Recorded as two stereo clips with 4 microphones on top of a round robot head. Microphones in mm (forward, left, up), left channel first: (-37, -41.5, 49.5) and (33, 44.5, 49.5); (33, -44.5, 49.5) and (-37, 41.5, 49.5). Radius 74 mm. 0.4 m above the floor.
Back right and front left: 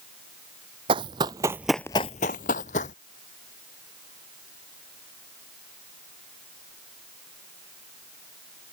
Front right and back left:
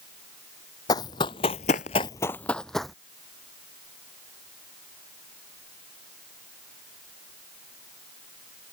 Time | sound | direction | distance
0.9 | running footsteps | 5° left | ?